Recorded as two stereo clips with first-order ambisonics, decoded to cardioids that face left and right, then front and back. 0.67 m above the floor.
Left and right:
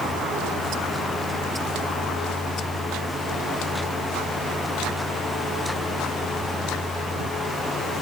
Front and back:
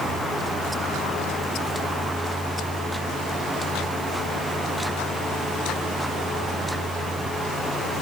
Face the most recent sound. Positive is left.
No sound to turn to.